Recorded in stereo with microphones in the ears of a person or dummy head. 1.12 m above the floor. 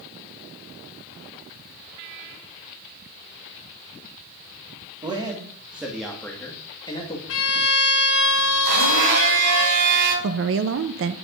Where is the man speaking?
25° right (ahead or behind), 1.9 m; by 7.2 s 25° left (ahead or behind), 2 m.